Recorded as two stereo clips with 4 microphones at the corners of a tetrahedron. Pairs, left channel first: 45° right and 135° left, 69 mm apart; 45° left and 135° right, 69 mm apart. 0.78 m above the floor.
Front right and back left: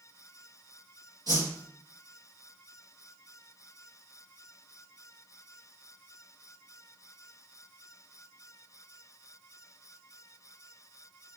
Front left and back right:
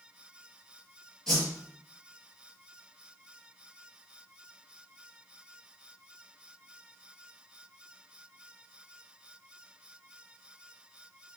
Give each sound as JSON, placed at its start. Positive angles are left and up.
{"t": 1.3, "sound": "a whoosh", "azimuth_deg": 130, "distance_m": 4.0}